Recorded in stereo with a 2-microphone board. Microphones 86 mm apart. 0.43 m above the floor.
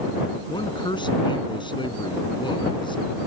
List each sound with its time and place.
0.5 s a man speaking: 70° left (ahead or behind)